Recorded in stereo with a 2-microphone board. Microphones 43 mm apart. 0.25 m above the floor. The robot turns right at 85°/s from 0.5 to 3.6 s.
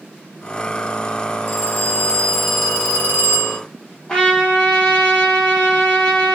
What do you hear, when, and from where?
1.5 s a phone ringing: 100° left, 1.3 m; by 3.6 s 80° right, 1.3 m
4.1 s a trumpet: 15° left (ahead or behind), 2.0 m